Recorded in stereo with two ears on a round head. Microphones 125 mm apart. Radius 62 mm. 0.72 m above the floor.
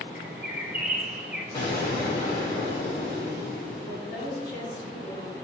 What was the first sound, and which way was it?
A bird, 15° right (ahead or behind).